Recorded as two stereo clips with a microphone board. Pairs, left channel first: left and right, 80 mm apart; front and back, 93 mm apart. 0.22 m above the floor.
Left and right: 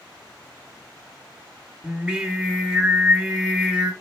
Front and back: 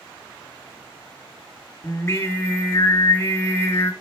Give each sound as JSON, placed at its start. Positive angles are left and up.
{"t": 1.8, "sound": "singing", "azimuth_deg": -25, "distance_m": 1.1}